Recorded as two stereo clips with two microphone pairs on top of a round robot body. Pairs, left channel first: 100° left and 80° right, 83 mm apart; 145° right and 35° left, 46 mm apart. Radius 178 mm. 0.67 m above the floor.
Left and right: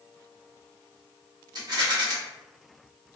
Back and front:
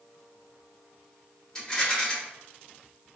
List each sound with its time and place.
1.6 s a rattle: 85° right, 1.7 m